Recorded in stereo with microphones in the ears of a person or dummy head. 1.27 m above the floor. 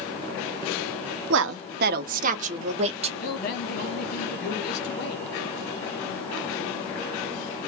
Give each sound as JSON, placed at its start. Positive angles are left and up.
{"t": 1.3, "sound": "a woman speaking", "side_deg": -70, "distance_m": 0.6}
{"t": 3.2, "sound": "a man speaking", "side_deg": 60, "distance_m": 1.5}